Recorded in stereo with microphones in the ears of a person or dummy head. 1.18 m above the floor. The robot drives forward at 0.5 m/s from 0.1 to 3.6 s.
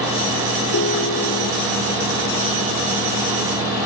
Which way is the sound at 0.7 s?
90° left.